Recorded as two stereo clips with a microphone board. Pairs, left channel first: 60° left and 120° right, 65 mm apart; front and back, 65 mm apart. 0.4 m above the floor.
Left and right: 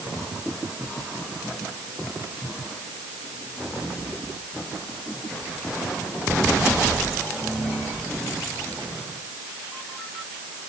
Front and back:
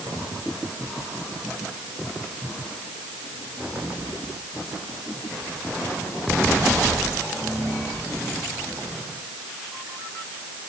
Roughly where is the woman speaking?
I don't hear a woman speaking.